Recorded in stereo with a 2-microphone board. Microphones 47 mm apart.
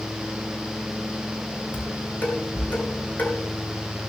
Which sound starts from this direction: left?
Dishes clattering, at 1.7 s.